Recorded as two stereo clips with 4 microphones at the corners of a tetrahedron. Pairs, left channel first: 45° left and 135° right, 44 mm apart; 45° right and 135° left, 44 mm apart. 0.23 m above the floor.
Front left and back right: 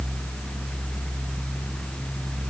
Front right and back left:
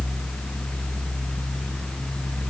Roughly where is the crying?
I don't hear crying.